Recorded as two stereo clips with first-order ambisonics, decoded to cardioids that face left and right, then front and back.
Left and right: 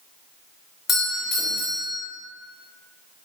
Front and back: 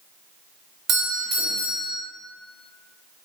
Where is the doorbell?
150° left, 1.0 m.